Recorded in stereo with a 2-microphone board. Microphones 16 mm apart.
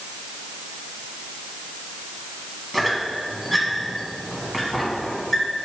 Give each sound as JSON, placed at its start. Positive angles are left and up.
{"t": 2.7, "sound": "a squeak", "side_deg": -10, "distance_m": 1.4}